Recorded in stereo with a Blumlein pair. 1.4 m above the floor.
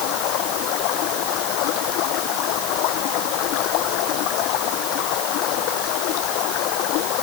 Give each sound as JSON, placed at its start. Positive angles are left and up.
{"t": 0.0, "sound": "running water", "azimuth_deg": 40}